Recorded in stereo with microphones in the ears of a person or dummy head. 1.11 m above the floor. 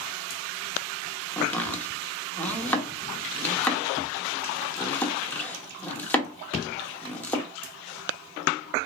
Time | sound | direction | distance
1.4 | chopping | 5° left (ahead or behind) | 1.0 m